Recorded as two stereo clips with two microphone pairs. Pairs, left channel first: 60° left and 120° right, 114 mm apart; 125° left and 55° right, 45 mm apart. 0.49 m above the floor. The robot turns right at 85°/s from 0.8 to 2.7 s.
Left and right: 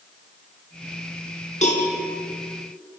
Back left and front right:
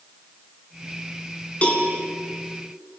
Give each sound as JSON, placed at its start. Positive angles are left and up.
{"t": 1.6, "sound": "a cowbell", "azimuth_deg": 65, "distance_m": 4.0}